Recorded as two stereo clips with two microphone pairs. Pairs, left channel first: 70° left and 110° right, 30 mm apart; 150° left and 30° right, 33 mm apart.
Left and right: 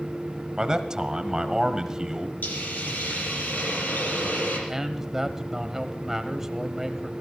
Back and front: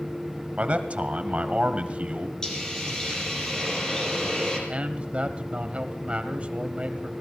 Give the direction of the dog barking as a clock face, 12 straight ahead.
I don't hear a dog barking.